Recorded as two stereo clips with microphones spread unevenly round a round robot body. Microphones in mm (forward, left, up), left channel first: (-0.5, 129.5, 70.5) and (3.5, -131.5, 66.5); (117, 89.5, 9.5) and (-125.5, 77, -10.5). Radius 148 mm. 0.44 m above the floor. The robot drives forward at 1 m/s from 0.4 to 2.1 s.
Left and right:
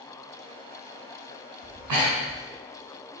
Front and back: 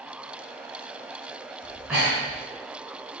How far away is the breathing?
About 3 m.